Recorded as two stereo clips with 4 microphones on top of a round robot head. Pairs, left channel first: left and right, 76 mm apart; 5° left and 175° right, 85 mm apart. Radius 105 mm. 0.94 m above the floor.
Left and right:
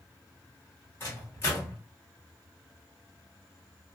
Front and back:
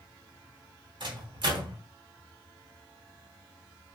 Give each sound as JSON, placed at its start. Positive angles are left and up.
{"t": 1.0, "sound": "a microwave", "azimuth_deg": 155, "distance_m": 1.0}